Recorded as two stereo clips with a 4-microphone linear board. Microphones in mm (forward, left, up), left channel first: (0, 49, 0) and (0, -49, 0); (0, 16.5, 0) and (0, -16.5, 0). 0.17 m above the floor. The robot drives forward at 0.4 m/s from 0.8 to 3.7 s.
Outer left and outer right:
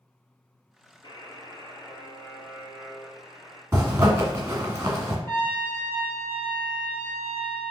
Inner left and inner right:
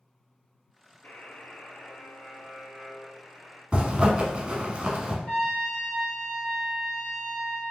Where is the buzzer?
50° left (ahead or behind), 0.9 m; by 3.6 s 25° left (ahead or behind), 1.8 m.